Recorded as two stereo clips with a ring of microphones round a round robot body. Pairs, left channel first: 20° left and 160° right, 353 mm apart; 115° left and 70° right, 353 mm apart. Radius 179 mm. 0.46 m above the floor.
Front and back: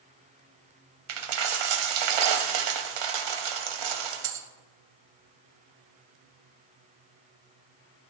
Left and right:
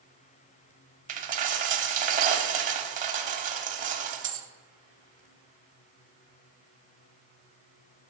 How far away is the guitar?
No guitar in this recording.